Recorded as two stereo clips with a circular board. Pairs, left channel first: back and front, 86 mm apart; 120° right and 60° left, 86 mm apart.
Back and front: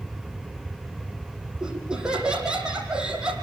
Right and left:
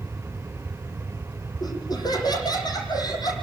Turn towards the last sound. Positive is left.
turn(degrees=-80)